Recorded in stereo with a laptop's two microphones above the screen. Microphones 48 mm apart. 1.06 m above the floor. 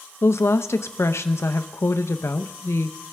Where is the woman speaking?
75° left (ahead or behind), 0.7 m.